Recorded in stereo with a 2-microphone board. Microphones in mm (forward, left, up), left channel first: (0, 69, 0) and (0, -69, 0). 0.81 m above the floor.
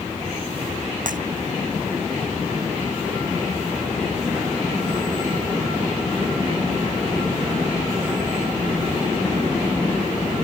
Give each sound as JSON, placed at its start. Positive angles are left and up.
{"t": 1.1, "sound": "breaking glass", "side_deg": -75}